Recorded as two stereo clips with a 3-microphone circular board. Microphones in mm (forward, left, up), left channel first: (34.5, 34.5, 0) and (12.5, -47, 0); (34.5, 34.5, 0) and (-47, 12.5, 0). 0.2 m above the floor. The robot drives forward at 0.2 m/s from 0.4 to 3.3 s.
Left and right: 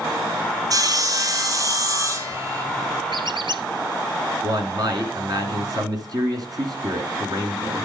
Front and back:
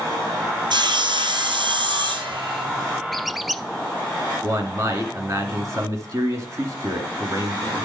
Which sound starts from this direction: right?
A squeak, at 3.1 s.